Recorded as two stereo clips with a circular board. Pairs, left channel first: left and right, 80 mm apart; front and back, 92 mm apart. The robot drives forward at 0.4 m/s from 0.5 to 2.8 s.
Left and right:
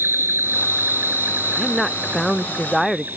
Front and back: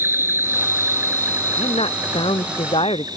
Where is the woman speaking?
Straight ahead.